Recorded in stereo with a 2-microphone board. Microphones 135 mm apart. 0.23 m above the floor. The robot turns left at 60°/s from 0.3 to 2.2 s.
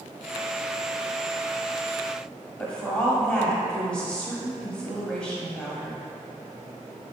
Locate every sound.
2.6 s a woman speaking: 5° left (ahead or behind), 1.0 m